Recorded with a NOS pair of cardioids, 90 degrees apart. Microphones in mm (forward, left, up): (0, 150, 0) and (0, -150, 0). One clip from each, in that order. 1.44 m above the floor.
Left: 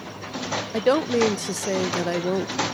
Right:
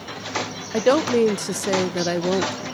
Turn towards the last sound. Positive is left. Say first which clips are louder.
# right 3 dB
turn(degrees=-10)